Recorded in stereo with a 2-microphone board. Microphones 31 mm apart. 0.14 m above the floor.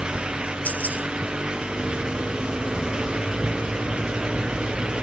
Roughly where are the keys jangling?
Left.